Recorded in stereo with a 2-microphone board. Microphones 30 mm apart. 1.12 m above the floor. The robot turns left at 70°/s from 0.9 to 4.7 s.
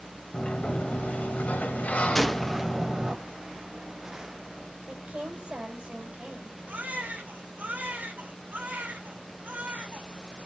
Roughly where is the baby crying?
Right.